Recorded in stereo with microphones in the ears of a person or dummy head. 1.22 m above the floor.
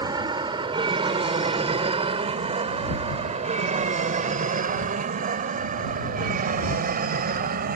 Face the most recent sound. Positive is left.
turn(degrees=-50)  # may be behind; listen again after turning